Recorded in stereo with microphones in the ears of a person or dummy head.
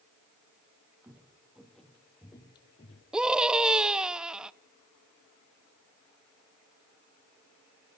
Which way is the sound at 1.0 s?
10° right (ahead or behind).